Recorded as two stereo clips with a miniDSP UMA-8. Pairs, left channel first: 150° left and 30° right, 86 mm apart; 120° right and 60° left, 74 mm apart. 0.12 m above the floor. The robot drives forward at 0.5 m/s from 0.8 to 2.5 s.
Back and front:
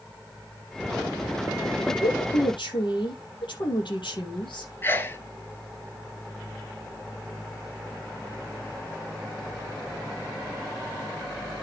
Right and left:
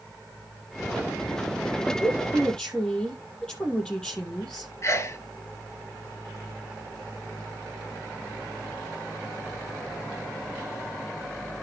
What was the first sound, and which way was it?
A woman speaking, 160° left.